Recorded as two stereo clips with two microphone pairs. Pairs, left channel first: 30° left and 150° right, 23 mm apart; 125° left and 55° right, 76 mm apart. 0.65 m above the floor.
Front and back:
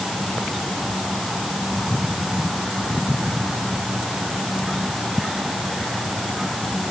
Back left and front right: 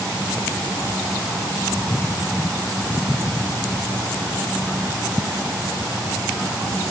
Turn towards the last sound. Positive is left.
No sound to turn to.